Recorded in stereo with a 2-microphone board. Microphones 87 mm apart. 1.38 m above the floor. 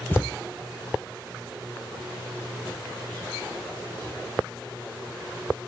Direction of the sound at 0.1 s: 25° left (ahead or behind).